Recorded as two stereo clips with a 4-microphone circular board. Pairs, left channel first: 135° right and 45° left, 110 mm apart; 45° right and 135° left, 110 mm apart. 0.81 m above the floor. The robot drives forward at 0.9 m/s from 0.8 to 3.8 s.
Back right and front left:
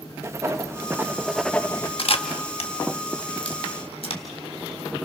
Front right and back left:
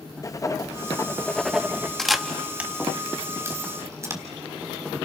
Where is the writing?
5° right, 0.9 m; by 1.9 s 175° right, 0.8 m.